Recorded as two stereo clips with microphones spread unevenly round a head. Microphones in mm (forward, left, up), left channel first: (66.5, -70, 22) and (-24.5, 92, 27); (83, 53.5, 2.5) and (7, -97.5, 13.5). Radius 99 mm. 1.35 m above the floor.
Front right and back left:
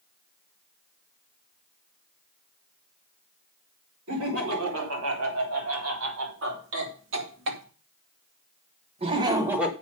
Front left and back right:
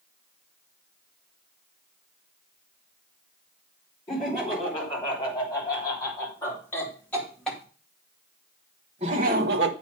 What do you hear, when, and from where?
4.1 s laughter: 130° left, 4.5 m; by 9.7 s 155° right, 1.2 m